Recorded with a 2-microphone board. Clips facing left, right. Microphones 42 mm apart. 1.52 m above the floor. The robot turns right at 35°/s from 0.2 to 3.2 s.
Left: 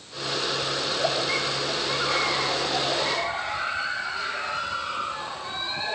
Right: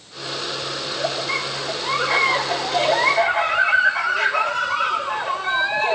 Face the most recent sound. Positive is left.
turn(degrees=-85)